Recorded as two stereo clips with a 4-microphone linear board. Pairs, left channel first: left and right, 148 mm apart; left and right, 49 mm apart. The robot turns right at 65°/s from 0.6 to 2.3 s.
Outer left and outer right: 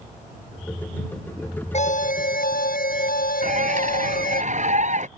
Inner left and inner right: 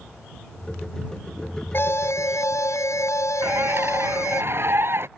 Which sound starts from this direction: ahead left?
An alarm, at 1.7 s.